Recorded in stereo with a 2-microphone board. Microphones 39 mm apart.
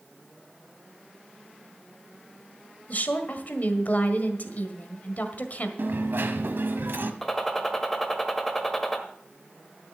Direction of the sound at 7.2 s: 5° left (ahead or behind).